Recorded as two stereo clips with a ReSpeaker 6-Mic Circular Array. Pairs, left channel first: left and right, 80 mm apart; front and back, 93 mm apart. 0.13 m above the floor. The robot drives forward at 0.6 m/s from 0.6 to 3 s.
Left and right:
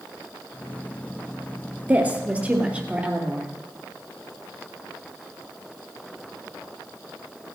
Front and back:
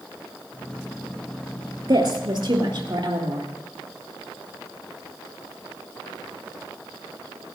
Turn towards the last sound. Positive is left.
turn(degrees=-160)